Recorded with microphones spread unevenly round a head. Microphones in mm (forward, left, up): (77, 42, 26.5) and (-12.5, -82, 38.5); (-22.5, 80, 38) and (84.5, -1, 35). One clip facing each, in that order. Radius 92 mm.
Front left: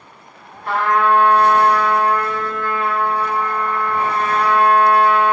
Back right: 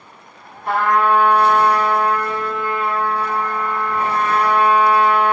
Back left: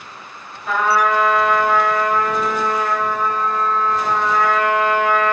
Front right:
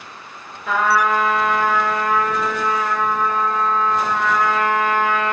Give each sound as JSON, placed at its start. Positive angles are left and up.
{"t": 0.7, "sound": "a trumpet", "azimuth_deg": -60, "distance_m": 1.9}